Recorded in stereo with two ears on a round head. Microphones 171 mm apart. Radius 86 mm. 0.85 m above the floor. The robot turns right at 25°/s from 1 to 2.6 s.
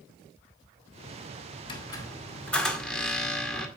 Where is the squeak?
25° left (ahead or behind), 1.9 m; by 3.7 s 5° left (ahead or behind), 1.9 m.